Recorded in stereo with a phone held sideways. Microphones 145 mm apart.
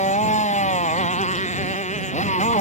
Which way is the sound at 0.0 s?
55° left (ahead or behind).